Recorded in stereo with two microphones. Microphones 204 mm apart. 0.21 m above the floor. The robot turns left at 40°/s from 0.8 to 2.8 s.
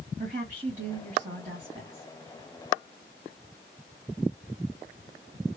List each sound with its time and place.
0.2 s a woman speaking: 95° right, 1.9 m; by 2.0 s 145° right, 1.9 m